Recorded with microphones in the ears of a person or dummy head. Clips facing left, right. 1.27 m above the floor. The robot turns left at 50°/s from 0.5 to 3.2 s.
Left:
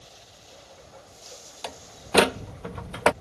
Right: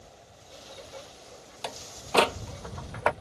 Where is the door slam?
Centre (ahead or behind); by 3.1 s 45° left (ahead or behind).